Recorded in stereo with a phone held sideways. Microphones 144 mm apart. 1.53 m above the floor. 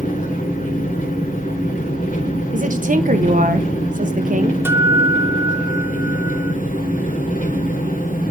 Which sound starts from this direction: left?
An engine running, at 0.0 s.